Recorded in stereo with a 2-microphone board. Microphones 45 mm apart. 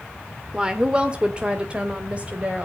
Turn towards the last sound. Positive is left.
turn(degrees=-30)  # may be behind; listen again after turning